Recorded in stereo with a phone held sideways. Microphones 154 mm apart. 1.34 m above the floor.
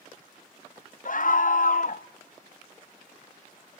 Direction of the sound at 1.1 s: 60° left (ahead or behind).